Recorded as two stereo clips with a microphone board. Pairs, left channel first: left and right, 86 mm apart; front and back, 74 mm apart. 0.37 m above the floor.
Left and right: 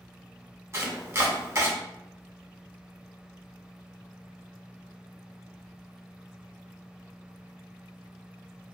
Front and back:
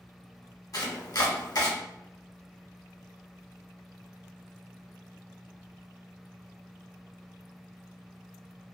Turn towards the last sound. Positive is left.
turn(degrees=-35)